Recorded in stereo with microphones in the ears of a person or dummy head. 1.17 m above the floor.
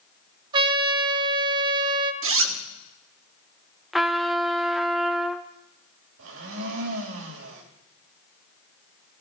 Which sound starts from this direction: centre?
A trumpet, at 3.9 s.